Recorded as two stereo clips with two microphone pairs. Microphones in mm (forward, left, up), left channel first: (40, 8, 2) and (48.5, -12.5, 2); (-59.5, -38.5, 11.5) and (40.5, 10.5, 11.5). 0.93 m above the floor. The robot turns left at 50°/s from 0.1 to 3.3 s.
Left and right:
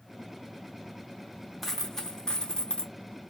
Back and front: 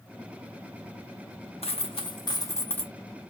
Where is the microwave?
No microwave in this recording.